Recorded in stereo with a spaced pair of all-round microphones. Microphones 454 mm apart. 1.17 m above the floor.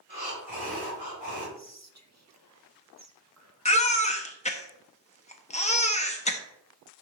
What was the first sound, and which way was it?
Breathing, 80° right.